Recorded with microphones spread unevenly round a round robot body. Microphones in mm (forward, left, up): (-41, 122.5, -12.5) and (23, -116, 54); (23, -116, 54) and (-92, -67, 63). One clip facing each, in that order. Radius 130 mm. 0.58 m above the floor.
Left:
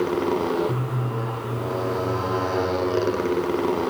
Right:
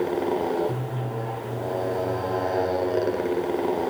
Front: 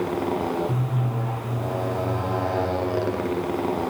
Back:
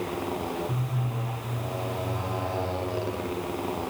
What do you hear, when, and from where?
0.0 s a motorcycle: 30° left